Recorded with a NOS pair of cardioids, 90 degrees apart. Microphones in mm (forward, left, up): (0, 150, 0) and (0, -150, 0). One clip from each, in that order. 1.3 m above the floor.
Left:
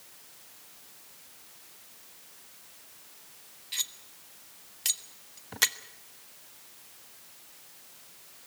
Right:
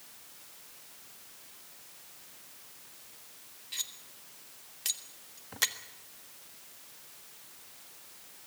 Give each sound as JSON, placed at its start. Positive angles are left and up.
{"t": 3.7, "sound": "cutlery clinking", "azimuth_deg": 25, "distance_m": 1.2}